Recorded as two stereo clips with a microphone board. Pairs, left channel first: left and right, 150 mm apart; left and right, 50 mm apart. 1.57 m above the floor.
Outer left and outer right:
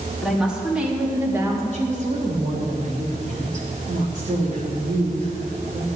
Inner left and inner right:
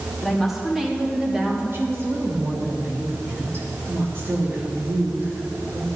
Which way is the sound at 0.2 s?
Centre (ahead or behind).